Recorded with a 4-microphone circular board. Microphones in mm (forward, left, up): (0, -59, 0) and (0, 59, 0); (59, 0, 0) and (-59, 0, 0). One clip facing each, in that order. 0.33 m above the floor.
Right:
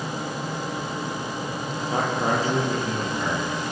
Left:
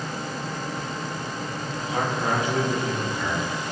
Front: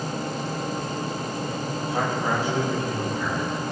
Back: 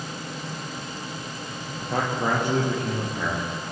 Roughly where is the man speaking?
Behind right.